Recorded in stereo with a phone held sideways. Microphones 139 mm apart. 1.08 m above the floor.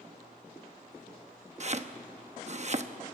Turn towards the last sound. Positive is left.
turn(degrees=-50)  # may be behind; listen again after turning